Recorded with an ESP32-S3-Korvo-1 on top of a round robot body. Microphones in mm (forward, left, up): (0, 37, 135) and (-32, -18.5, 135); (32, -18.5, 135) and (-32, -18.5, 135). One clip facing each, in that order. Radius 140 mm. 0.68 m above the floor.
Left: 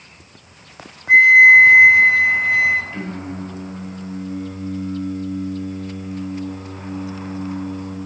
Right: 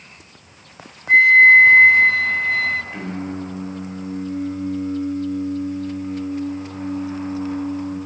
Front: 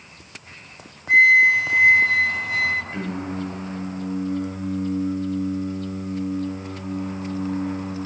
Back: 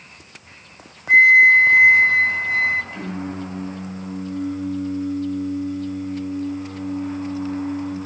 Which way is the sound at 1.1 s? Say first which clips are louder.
Left 2 dB, back 3 dB; 130° left.